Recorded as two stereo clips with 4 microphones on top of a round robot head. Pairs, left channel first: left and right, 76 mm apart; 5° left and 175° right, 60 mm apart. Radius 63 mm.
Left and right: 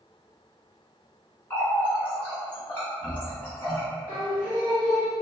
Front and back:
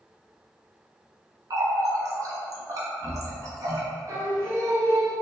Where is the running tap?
160° left, 0.7 m.